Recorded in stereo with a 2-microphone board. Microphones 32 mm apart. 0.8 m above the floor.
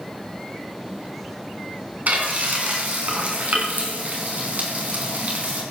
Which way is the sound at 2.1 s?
50° right (ahead or behind).